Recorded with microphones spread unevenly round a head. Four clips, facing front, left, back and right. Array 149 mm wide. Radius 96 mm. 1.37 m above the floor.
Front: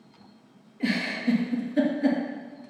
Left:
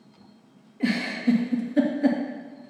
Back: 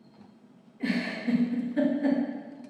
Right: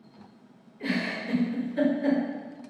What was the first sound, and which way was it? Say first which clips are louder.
A giggle: left 6 dB, front 2 dB; 85° left.